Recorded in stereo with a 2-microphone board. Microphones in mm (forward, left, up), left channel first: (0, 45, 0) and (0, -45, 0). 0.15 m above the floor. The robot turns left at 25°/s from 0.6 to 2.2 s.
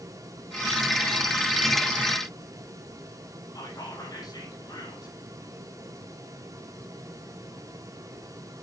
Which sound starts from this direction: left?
Whispering, at 3.5 s.